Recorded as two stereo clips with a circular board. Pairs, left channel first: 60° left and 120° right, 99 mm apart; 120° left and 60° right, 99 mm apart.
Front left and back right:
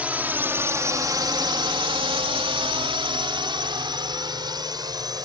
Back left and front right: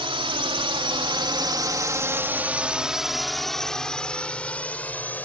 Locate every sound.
0.0 s a drone: 45° right; by 5.2 s 170° right